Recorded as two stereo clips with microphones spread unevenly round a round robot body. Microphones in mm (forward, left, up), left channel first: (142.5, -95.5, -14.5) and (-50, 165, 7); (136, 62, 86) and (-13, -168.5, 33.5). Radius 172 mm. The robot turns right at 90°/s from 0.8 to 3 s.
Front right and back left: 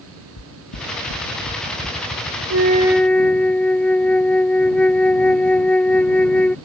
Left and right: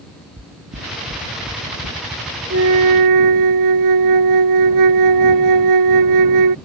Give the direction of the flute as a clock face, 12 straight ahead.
6 o'clock.